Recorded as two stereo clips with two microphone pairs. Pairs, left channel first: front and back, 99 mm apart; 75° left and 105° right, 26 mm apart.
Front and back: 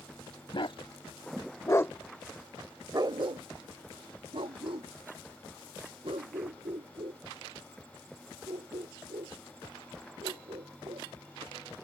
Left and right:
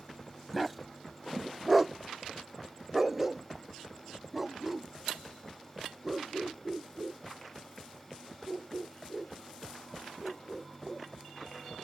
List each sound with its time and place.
0.5 s a dog barking: 15° right; by 11.1 s 175° left